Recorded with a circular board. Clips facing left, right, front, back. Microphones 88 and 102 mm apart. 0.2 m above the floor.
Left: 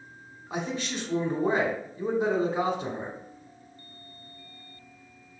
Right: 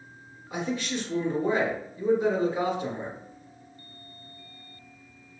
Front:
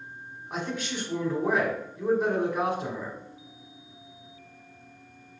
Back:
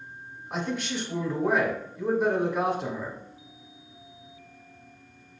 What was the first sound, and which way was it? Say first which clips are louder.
A man speaking: right 2 dB, back 2 dB; 90° left.